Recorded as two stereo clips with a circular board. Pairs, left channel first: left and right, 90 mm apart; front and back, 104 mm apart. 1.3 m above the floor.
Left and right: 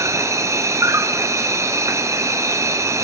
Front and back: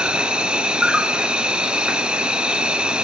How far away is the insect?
About 0.9 m.